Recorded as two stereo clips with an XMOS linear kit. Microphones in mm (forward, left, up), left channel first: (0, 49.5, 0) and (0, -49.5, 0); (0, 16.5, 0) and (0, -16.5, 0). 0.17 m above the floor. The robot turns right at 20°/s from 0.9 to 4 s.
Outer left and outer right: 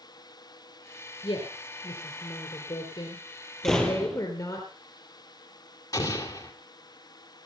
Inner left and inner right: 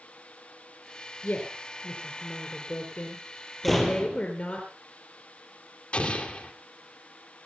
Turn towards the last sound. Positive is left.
turn(degrees=40)  # may be behind; listen again after turning